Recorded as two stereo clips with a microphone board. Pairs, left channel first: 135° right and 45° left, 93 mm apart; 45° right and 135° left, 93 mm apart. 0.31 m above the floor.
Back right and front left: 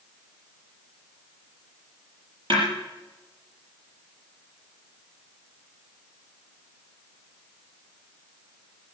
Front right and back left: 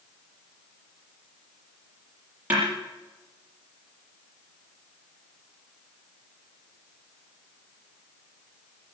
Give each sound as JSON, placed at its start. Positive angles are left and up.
{"t": 2.5, "sound": "a snare drum", "azimuth_deg": 65, "distance_m": 7.0}